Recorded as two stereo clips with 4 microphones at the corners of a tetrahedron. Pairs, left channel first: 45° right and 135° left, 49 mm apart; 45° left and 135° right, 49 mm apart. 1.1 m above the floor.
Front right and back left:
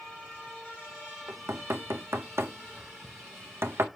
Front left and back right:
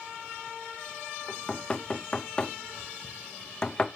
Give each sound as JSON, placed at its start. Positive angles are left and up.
{"t": 1.3, "sound": "knocking", "azimuth_deg": 115, "distance_m": 0.6}